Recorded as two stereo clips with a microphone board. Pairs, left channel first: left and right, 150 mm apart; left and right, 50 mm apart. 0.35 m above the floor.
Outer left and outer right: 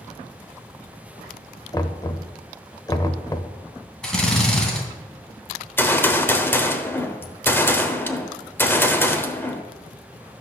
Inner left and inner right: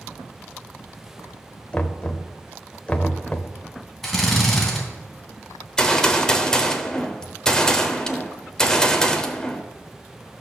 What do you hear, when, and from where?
1.7 s knocking: 25° left (ahead or behind), 0.7 m
4.0 s a drill: 5° left (ahead or behind), 2.5 m
5.8 s a gunshot: 15° left (ahead or behind), 0.9 m